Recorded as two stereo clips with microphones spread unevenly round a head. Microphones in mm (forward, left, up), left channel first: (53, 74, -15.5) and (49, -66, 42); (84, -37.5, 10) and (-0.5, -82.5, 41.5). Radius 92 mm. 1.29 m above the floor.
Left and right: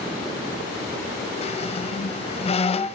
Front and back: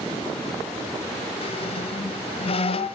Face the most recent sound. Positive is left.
turn(degrees=35)